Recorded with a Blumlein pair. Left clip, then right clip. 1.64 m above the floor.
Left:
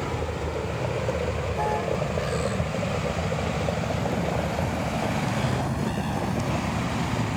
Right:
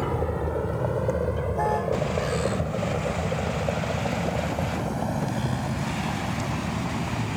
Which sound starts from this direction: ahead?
A vehicle, at 0.0 s.